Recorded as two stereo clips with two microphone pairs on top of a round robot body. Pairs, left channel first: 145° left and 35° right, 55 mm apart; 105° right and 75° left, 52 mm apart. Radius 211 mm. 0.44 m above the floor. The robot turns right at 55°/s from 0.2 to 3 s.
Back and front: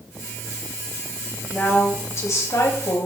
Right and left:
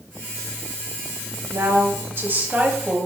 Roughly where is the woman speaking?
Left.